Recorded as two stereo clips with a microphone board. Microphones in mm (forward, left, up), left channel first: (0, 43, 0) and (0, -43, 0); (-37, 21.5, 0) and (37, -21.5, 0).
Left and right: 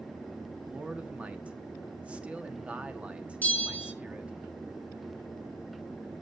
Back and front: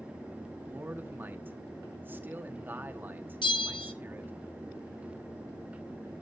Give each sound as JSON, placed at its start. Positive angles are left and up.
{"t": 0.6, "sound": "a man speaking", "azimuth_deg": -35, "distance_m": 1.2}
{"t": 3.4, "sound": "a bell", "azimuth_deg": 160, "distance_m": 2.5}